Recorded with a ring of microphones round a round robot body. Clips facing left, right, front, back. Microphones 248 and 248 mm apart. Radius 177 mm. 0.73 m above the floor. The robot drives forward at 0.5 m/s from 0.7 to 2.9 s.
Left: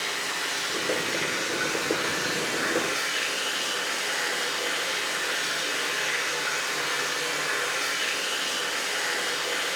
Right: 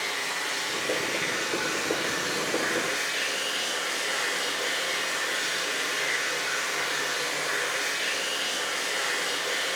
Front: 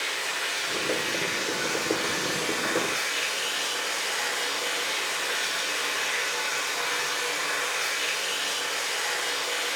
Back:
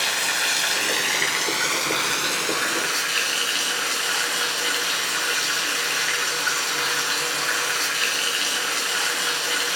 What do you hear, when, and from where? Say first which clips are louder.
0.0 s running water: even, back 4 dB; 170° left, 1.3 m; by 9.8 s 175° left, 2.5 m